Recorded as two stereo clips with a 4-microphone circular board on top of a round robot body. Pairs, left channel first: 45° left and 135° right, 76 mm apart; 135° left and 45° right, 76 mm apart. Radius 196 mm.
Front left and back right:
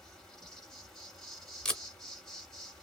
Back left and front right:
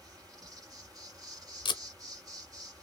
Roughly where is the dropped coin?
No dropped coin in this recording.